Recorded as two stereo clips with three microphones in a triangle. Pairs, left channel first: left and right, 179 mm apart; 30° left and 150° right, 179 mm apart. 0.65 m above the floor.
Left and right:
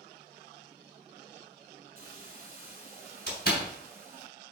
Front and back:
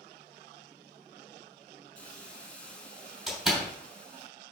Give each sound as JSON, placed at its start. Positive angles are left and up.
{"t": 1.9, "sound": "a hiss", "azimuth_deg": -55, "distance_m": 1.5}
{"t": 3.3, "sound": "a door slam", "azimuth_deg": 120, "distance_m": 3.0}